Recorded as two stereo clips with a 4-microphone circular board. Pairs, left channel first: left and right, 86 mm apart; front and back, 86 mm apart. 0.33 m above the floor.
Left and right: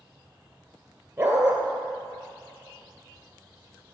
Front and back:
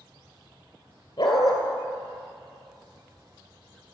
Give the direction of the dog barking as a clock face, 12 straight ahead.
1 o'clock.